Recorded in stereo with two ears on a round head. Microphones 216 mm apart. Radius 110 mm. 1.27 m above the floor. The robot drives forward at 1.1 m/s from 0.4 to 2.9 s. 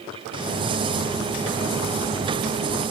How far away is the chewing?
I don't hear chewing.